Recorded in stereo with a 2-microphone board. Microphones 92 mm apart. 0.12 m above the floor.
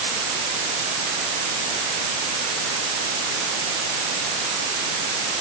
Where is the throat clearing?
I don't hear throat clearing.